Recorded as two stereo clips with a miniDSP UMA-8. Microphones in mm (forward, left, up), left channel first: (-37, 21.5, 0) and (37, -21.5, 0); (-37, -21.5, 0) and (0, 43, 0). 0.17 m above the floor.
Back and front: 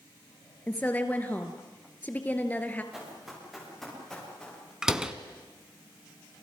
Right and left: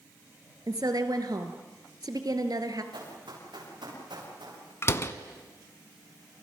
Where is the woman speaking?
80° left, 2.5 m.